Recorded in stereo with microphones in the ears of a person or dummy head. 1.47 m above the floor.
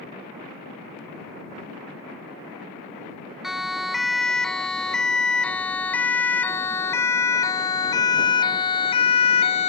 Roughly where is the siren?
Centre.